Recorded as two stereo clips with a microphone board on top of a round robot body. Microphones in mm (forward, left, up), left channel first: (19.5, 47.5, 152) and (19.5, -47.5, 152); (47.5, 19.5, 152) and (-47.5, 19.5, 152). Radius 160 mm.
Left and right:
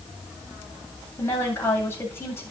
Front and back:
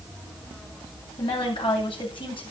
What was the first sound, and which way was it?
A woman speaking, 25° left.